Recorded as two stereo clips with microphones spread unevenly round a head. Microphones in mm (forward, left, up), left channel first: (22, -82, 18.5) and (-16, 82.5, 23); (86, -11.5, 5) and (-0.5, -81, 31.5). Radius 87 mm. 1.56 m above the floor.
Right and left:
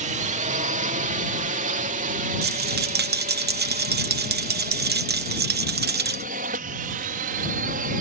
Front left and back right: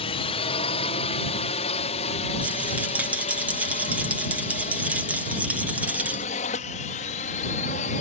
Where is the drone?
60° left.